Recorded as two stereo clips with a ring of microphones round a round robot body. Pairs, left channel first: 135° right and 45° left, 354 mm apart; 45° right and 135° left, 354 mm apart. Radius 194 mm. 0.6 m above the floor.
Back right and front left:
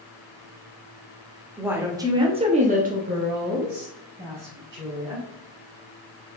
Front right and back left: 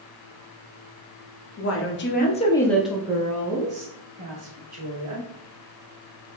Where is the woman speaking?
40° right, 1.0 m; by 5.2 s 105° left, 1.6 m.